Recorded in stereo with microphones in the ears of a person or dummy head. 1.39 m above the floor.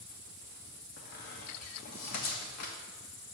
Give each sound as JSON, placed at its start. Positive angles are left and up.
{"t": 1.0, "sound": "a squeak", "side_deg": 50, "distance_m": 1.1}